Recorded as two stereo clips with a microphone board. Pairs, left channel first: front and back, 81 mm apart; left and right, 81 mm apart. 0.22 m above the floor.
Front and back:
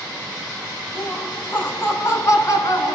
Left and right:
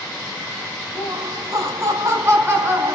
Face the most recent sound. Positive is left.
turn(degrees=-30)